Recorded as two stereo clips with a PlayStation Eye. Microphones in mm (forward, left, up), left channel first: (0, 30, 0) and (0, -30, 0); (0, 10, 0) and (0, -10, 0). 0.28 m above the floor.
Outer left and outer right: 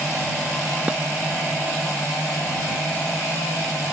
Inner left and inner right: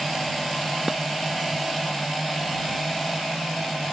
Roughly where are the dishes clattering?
Right.